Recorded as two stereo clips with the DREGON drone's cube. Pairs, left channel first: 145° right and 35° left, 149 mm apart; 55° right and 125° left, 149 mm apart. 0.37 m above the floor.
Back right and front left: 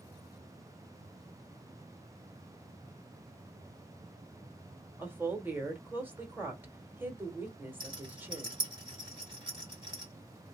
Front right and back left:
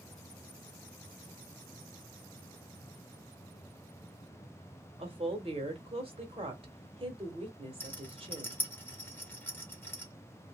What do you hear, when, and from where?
5.0 s a woman speaking: 105° left, 1.0 m
7.8 s a rattle: 10° left, 1.6 m